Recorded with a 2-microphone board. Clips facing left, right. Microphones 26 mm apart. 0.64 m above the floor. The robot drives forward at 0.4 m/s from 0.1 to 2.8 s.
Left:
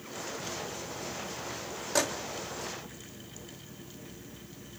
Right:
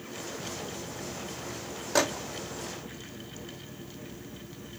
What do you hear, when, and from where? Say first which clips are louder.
1.9 s a microwave: right 3 dB; 10° right (ahead or behind), 1.0 m